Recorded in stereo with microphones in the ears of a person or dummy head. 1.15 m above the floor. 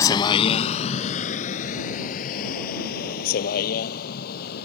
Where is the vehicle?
20° left (ahead or behind); by 4.7 s 60° left (ahead or behind).